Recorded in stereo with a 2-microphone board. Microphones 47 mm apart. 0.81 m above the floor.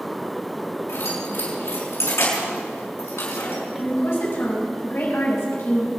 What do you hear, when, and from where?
0.9 s keys jangling: 75° left (ahead or behind), 6.5 m
3.8 s a woman speaking: 60° left (ahead or behind), 6.5 m